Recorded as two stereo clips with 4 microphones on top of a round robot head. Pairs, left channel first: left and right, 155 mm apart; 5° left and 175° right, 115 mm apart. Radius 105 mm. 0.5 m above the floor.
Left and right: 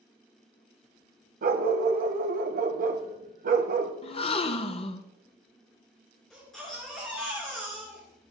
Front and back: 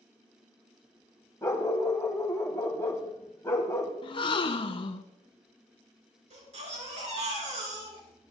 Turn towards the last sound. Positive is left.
turn(degrees=180)